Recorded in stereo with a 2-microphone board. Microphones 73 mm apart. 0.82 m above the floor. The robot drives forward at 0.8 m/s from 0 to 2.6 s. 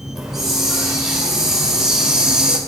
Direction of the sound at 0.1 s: 5° right (ahead or behind).